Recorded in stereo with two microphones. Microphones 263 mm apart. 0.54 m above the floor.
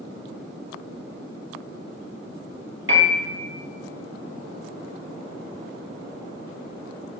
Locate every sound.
2.9 s a piano: 45° right (ahead or behind), 0.7 m